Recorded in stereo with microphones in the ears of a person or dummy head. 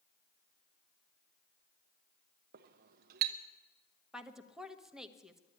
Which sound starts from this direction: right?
A clink, at 2.5 s.